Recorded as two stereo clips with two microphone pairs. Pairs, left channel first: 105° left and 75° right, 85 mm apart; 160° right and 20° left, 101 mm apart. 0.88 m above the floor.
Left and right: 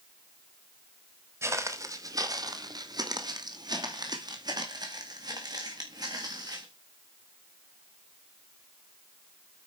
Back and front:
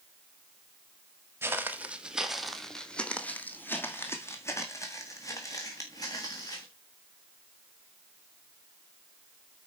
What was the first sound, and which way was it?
Footsteps, 35° right.